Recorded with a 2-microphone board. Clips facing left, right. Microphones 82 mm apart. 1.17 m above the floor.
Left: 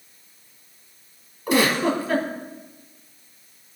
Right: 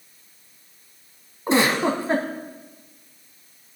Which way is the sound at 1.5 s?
30° right (ahead or behind).